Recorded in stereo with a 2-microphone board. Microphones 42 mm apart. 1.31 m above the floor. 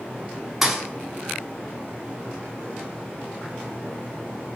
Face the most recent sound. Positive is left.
turn(degrees=-10)  # may be behind; listen again after turning